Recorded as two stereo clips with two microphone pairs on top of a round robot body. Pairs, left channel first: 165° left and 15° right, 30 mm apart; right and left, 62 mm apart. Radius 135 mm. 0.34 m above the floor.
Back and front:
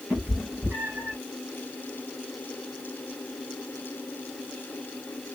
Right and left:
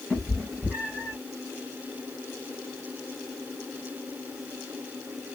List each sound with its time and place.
0.1 s a cat meowing: 30° right, 3.5 m; by 1.2 s 25° right, 4 m